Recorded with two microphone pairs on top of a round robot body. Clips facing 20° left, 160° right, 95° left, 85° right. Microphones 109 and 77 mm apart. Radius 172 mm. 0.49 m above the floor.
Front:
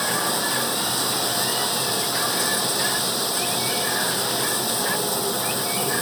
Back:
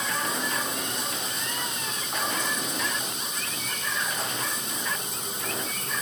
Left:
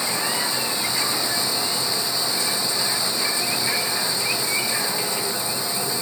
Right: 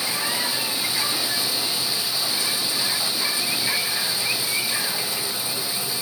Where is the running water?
25° left.